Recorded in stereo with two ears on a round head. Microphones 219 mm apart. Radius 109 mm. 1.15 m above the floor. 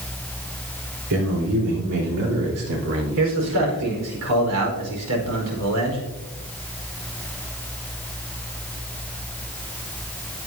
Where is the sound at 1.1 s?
85° right, 4 m; by 3.8 s 55° right (ahead or behind), 3 m.